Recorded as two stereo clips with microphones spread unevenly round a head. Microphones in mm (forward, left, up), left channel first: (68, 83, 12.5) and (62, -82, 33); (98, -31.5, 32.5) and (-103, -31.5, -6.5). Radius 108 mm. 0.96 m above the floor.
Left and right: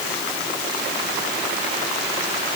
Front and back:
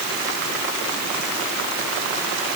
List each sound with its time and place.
Only background noise.